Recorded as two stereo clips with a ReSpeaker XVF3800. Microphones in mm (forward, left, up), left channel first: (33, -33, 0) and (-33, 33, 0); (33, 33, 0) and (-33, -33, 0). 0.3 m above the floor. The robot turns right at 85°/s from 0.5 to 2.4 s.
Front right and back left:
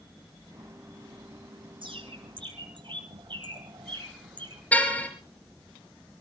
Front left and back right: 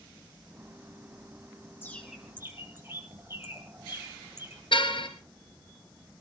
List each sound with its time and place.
1.8 s a bird: 110° left, 3.5 m; by 4.6 s 160° left, 3.5 m
4.7 s a car horn: 25° left, 3.5 m